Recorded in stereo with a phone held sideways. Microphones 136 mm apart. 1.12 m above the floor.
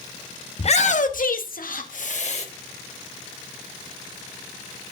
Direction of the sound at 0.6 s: 45° left (ahead or behind).